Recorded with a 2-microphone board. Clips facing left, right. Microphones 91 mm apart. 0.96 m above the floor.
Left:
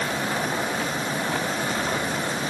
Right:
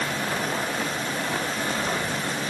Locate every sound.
Only background noise.